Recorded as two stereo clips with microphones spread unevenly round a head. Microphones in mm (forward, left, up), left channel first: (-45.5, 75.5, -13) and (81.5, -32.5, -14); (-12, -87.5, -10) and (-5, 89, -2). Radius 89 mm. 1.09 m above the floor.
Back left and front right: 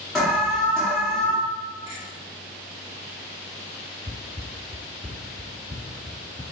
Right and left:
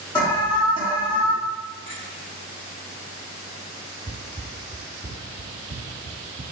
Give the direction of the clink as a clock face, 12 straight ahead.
4 o'clock.